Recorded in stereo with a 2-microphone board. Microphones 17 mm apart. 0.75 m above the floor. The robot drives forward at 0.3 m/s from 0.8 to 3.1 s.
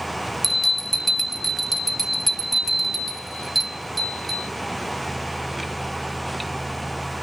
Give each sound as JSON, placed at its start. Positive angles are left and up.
{"t": 0.4, "sound": "a bell", "side_deg": 10, "distance_m": 0.5}